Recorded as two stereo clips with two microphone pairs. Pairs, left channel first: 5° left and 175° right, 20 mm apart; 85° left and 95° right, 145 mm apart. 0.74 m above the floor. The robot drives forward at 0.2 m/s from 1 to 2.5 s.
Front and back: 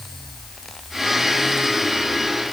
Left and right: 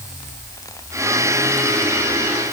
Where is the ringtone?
No ringtone in this recording.